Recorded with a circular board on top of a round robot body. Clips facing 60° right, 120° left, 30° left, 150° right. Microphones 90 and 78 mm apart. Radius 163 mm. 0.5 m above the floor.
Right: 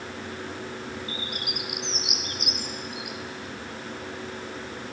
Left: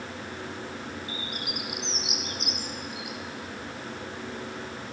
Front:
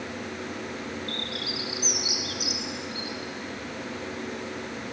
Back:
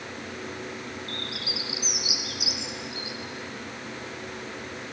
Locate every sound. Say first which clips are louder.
1.1 s a bird: right 1 dB, front 2 dB; 15° right, 2.5 m